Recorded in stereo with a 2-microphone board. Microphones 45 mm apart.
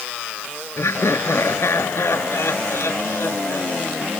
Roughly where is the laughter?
Left.